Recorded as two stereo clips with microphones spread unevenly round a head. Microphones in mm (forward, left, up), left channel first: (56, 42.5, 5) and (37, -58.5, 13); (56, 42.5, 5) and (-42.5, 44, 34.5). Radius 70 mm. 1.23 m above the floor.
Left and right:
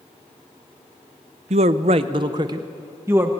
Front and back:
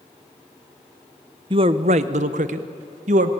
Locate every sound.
1.5 s a man speaking: 125° right, 0.8 m; by 3.3 s straight behind, 1.7 m